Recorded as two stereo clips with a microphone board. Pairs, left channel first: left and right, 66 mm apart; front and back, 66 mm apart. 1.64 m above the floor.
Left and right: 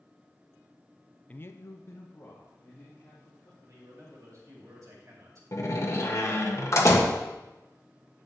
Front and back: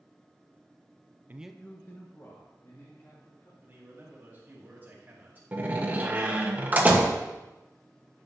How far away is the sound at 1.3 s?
About 0.5 m.